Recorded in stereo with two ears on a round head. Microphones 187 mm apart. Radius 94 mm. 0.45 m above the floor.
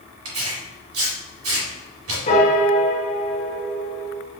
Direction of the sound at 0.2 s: 85° right.